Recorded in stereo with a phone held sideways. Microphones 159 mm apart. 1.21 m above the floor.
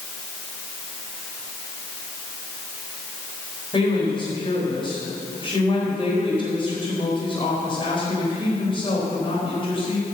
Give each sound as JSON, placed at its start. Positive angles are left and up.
{"t": 3.7, "sound": "a woman speaking", "side_deg": 35, "distance_m": 4.5}